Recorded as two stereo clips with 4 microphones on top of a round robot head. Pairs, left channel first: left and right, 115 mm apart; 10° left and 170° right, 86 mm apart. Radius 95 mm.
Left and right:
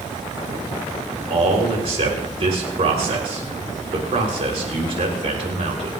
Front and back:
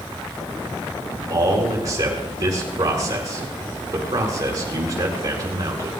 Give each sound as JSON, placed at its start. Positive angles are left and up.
{"t": 1.3, "sound": "a man speaking", "azimuth_deg": -120, "distance_m": 3.5}